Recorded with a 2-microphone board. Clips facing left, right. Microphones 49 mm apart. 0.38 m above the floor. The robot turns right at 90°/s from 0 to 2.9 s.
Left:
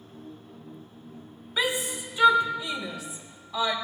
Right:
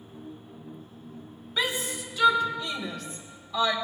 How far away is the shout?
About 1.2 m.